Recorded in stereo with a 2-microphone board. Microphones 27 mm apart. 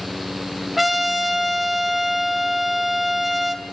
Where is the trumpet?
10° right (ahead or behind), 3 m.